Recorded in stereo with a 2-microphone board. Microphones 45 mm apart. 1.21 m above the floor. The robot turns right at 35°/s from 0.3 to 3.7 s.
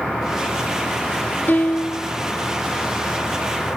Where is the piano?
45° left (ahead or behind), 0.9 m; by 2.1 s 25° left (ahead or behind), 0.9 m.